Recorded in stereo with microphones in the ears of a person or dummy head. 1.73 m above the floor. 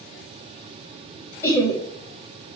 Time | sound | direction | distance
1.4 | laughter | 25° left (ahead or behind) | 0.7 m